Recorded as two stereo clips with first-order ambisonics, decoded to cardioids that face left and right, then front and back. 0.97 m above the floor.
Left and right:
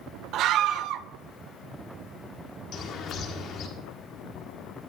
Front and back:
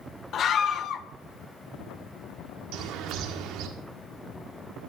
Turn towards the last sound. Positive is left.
turn(degrees=140)